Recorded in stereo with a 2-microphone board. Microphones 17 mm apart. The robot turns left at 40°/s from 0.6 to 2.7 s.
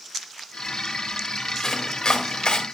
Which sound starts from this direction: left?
Chopping, at 1.6 s.